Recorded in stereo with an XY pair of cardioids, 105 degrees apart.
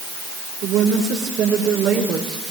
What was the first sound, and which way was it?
A woman speaking, 60° right.